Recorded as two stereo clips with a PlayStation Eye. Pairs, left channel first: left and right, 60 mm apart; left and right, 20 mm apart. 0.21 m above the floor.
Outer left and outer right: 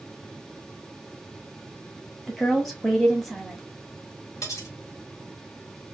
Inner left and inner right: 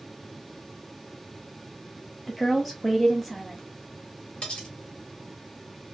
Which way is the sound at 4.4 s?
65° left (ahead or behind).